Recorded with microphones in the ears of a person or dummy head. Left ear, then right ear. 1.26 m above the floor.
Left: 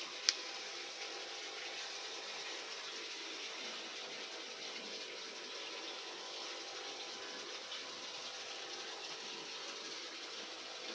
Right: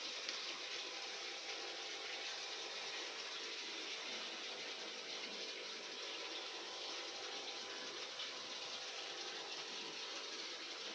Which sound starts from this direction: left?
A finger snap, at 0.3 s.